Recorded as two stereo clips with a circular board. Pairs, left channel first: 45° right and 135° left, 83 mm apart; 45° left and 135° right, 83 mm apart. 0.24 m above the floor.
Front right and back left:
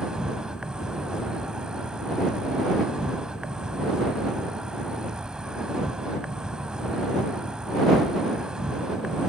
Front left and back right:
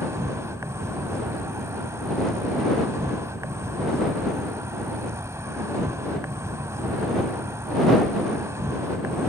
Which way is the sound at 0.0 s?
150° right.